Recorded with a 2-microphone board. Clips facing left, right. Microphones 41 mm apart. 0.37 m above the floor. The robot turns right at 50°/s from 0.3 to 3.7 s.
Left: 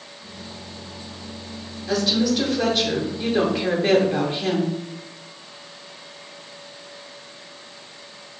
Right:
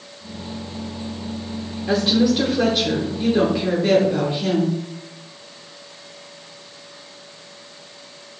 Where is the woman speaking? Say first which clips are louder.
Right 3 dB; 70° right, 1.0 m; by 4.8 s 20° left, 1.0 m.